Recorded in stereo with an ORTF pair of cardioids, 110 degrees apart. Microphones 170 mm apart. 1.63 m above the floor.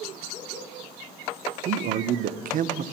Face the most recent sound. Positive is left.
turn(degrees=-55)